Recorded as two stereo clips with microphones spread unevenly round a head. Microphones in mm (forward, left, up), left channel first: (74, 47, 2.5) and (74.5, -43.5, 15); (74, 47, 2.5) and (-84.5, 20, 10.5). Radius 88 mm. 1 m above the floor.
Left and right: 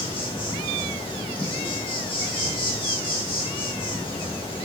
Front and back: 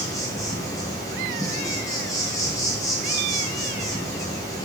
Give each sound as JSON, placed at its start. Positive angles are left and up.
{"t": 0.0, "sound": "an insect", "azimuth_deg": 80, "distance_m": 3.5}